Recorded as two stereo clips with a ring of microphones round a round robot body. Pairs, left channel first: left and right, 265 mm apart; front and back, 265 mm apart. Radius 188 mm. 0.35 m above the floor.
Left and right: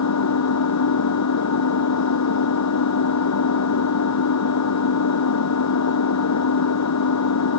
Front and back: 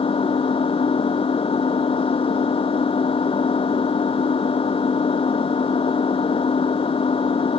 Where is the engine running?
70° left.